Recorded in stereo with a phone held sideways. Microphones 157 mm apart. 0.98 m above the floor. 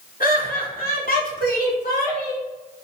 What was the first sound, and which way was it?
Laughter, 60° left (ahead or behind).